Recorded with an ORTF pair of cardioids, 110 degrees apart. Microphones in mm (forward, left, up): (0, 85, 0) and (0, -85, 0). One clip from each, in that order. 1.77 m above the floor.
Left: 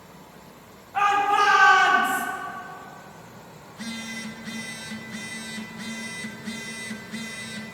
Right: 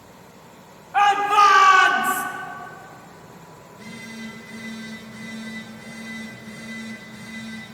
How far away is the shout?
About 3.5 m.